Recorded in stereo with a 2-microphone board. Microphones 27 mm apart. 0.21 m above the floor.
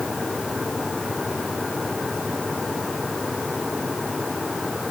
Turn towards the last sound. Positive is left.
No sound to turn to.